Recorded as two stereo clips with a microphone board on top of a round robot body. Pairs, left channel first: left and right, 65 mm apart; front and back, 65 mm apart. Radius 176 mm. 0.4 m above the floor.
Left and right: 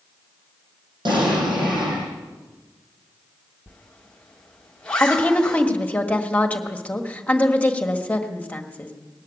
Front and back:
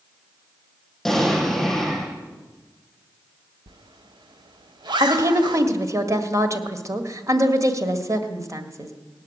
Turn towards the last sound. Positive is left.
turn(degrees=155)